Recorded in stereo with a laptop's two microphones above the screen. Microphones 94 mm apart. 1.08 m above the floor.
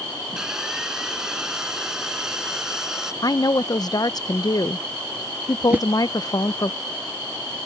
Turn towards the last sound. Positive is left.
turn(degrees=-20)  # may be behind; listen again after turning